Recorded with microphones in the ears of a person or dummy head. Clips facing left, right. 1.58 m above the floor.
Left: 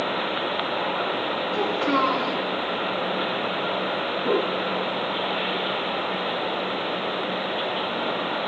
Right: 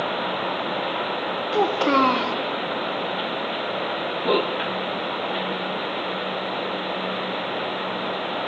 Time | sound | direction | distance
1.5 | a child speaking | 50° right (ahead or behind) | 0.6 m